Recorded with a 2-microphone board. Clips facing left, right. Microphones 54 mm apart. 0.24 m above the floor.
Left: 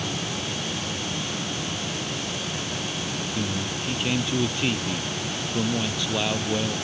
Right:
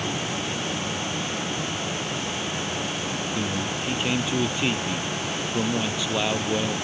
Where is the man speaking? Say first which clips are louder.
Right 1 dB; 5° right (ahead or behind).